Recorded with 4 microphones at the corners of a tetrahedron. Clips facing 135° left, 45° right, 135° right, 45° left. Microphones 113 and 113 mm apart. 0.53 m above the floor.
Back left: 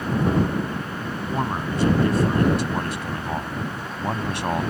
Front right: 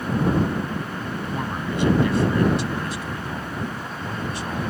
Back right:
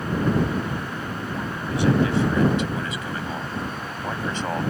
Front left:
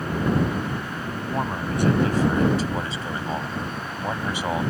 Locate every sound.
1.3 s a man speaking: 80° left; by 4.7 s 130° left